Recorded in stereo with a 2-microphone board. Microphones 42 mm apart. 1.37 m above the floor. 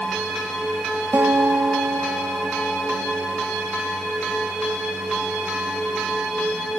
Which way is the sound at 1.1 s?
70° right (ahead or behind).